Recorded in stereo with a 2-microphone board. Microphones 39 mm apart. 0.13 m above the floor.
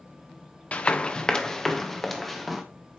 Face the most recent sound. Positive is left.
turn(degrees=0)  # may be behind; listen again after turning